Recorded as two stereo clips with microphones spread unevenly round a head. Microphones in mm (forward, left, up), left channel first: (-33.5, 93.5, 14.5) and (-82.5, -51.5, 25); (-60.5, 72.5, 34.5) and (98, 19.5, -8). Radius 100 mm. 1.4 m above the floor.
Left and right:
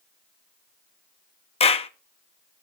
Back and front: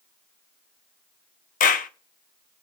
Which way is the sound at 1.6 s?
125° left.